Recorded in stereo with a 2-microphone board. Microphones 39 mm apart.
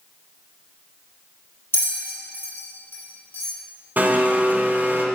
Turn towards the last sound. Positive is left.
turn(degrees=-50)  # may be behind; listen again after turning